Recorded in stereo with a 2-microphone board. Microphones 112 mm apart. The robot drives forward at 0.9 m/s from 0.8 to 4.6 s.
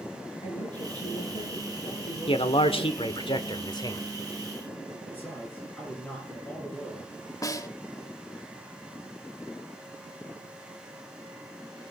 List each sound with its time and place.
0.4 s a woman speaking: 85° left, 7.5 m; by 3.0 s 80° left, 8 m
2.3 s a man speaking: 55° left (ahead or behind), 1.4 m; by 4.0 s 35° left (ahead or behind), 1.9 m
5.1 s a man speaking: 15° left (ahead or behind), 8.5 m
7.4 s a snare drum: 30° left (ahead or behind), 1.0 m